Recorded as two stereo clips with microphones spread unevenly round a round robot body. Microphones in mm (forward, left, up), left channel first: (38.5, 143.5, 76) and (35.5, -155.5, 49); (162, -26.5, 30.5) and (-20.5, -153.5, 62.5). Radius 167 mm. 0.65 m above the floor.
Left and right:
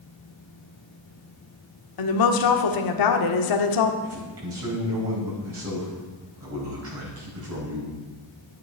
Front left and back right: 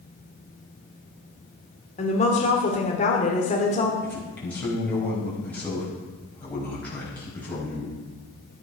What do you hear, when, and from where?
2.0 s a woman speaking: 95° left, 1.4 m
4.0 s a man speaking: 45° right, 4.5 m